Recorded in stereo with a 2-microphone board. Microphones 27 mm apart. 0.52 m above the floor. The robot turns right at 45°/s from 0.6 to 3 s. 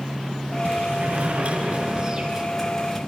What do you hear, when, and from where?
0.7 s a sliding door: 90° right, 4.5 m; by 3.0 s 15° left, 4.5 m